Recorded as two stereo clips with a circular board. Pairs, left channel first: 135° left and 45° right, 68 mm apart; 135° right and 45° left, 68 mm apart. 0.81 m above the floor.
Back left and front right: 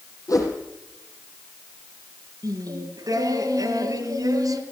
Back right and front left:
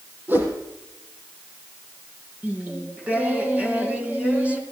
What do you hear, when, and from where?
0.3 s a whoosh: 105° left, 5.5 m
2.4 s singing: 25° right, 3.5 m